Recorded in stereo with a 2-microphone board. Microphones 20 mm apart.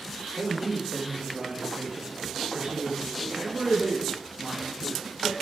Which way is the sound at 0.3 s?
75° right (ahead or behind).